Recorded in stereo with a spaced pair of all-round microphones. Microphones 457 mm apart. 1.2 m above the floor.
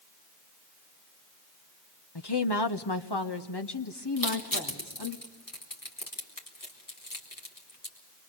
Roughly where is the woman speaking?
Left.